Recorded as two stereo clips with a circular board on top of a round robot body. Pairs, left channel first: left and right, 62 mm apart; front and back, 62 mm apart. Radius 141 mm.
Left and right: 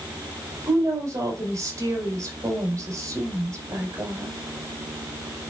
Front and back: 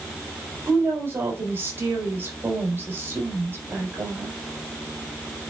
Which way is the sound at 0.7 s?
130° right.